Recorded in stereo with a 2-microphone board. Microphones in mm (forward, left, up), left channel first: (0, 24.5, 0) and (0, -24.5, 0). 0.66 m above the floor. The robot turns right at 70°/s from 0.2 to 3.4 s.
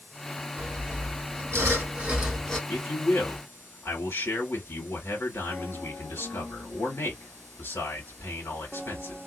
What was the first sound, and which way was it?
Sawing, 125° right.